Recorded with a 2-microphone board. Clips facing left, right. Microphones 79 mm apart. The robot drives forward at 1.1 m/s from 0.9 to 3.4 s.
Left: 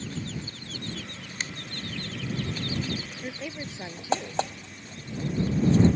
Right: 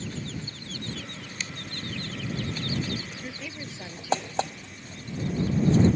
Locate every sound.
1.4 s a finger snap: 45° left (ahead or behind)
3.2 s a woman speaking: 25° left (ahead or behind)